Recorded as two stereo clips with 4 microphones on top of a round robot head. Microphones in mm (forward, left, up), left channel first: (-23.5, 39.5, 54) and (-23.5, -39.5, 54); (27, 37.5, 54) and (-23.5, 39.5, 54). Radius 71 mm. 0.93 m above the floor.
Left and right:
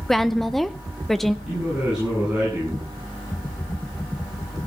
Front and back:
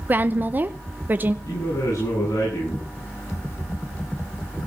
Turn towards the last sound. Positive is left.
turn(degrees=-5)